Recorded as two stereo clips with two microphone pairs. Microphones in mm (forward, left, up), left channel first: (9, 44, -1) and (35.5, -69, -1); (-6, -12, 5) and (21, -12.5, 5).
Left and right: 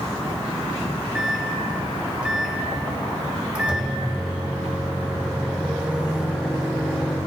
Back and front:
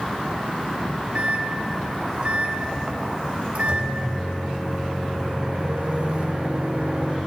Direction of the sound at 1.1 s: Straight ahead.